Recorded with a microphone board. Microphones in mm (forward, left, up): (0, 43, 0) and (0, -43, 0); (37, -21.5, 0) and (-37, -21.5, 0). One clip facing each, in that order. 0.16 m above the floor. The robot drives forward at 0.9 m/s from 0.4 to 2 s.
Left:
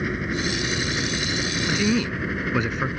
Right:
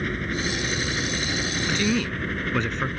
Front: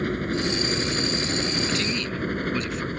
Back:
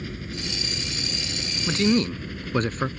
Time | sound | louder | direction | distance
0.0 | a helicopter | left 2 dB, front 9 dB | 10° left | ?
1.7 | a man speaking | left 2 dB, back 5 dB | 165° left | ?